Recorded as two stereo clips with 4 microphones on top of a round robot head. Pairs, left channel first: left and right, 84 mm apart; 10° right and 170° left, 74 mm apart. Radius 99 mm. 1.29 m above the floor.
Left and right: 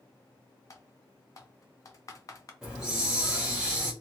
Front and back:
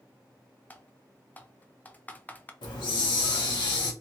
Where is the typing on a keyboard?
55° left, 0.6 m.